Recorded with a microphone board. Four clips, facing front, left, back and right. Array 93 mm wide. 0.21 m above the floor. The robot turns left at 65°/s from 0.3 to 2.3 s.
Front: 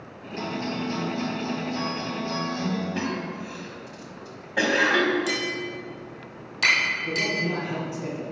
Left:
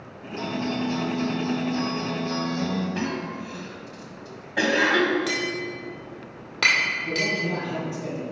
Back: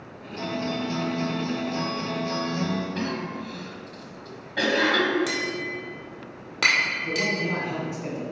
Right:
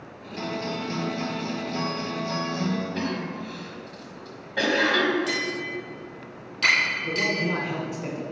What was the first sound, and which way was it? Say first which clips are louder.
A guitar: left 3 dB, back 1 dB; 45° right.